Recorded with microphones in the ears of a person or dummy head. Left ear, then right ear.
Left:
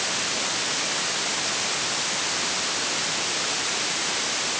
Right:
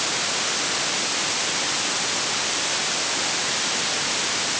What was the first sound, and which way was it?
Only background noise.